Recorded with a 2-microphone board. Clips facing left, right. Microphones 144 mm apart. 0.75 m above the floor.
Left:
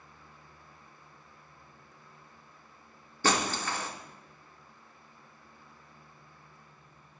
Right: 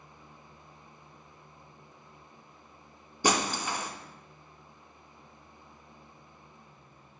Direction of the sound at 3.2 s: 15° right (ahead or behind).